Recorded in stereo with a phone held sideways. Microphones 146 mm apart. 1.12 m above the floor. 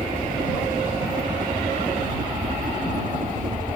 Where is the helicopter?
60° right (ahead or behind); by 3.8 s 65° right (ahead or behind).